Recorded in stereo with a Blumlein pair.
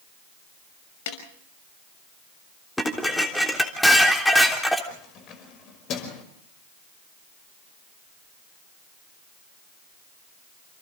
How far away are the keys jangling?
About 5.5 m.